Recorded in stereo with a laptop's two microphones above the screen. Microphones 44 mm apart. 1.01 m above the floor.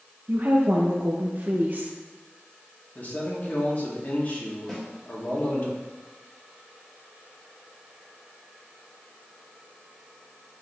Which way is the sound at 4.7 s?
5° left (ahead or behind).